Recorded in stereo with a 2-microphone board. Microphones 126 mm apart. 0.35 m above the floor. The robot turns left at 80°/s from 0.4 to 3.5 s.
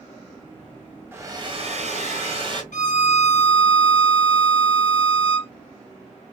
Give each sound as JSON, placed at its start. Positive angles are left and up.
{"t": 1.1, "sound": "a hair dryer", "azimuth_deg": -20, "distance_m": 1.2}
{"t": 2.7, "sound": "a violin", "azimuth_deg": 110, "distance_m": 0.7}